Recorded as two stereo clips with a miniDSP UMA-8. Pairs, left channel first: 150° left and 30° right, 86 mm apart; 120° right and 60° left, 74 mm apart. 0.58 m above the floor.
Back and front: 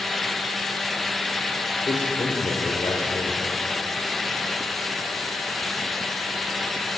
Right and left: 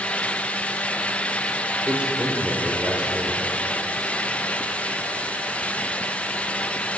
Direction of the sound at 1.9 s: 130° left.